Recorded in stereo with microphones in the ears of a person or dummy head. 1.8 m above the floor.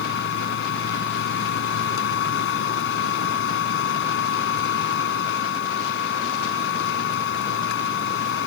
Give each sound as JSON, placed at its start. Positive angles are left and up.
{"t": 0.0, "sound": "a machine running", "side_deg": 65}